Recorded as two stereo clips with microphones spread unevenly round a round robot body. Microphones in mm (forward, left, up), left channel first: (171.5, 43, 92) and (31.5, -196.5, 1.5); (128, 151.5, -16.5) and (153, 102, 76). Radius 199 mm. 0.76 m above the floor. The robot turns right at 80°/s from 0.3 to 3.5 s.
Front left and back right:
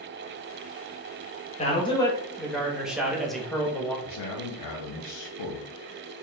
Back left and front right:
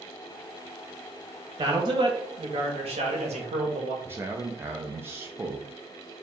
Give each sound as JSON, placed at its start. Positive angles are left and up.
{"t": 1.6, "sound": "a man speaking", "azimuth_deg": 135, "distance_m": 0.9}
{"t": 4.0, "sound": "a man speaking", "azimuth_deg": 80, "distance_m": 0.6}